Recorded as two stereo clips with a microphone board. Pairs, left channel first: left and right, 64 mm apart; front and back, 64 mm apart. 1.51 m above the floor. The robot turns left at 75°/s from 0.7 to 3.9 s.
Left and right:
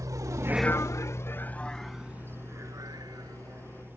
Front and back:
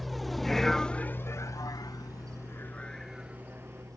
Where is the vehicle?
90° right; by 4.0 s 150° right.